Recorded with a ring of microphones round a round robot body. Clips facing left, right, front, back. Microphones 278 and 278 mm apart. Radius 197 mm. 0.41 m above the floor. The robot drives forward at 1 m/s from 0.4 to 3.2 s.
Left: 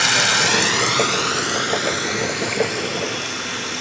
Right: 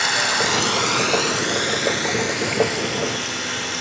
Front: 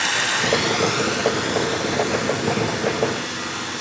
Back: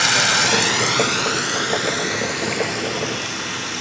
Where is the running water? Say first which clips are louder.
Left 1 dB, back 2 dB; 140° left, 0.9 m; by 3.8 s 170° left, 3.5 m.